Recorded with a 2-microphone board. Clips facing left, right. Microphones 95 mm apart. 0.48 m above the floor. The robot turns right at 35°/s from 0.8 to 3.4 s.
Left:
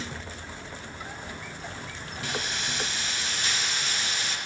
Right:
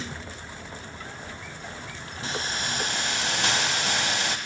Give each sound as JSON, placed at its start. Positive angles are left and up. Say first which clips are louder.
{"t": 2.2, "sound": "a hiss", "louder": "right 2 dB", "azimuth_deg": -150, "distance_m": 0.7}